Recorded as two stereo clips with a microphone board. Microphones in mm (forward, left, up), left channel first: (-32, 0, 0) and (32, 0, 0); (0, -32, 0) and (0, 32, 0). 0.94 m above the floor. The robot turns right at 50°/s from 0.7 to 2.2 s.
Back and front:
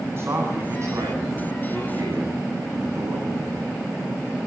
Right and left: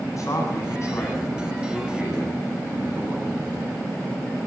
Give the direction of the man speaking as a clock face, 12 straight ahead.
2 o'clock.